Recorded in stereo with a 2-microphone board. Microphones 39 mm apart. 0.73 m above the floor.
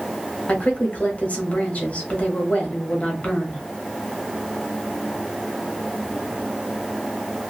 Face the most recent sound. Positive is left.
turn(degrees=40)  # may be behind; listen again after turning